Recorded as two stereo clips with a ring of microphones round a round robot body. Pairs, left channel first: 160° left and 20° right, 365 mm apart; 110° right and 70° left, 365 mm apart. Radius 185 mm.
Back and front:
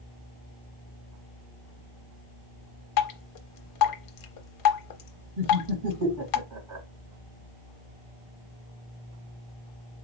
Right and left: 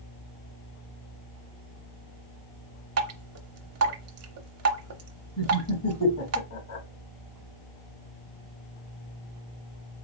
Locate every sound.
3.0 s dripping: 120° left, 0.7 m
5.4 s laughter: 60° right, 2.5 m